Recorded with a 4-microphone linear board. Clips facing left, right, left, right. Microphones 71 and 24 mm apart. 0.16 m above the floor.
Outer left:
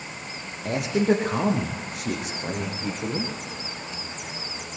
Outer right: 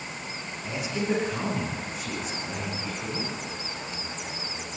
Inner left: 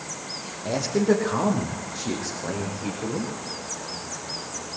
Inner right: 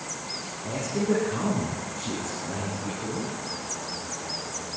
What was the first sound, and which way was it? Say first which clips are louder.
A man speaking: outer left 7 dB, inner left 5 dB; 65° left (ahead or behind).